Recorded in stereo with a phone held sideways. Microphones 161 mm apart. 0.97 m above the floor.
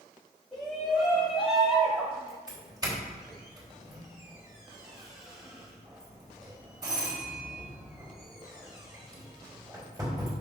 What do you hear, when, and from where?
0.5 s a shout: centre (ahead or behind), 2.5 m; by 2.4 s 20° right (ahead or behind), 1.1 m
2.5 s a doorbell: 25° right (ahead or behind), 3 m